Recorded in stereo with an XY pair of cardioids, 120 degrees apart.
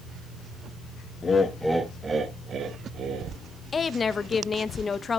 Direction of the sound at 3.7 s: 25° left.